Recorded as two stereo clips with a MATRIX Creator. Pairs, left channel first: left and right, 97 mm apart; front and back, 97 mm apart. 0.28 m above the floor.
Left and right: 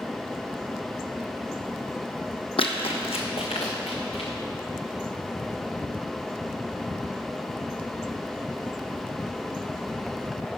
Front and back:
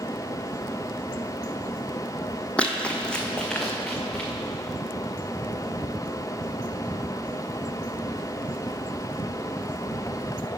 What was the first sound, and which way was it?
Running footsteps, 80° left.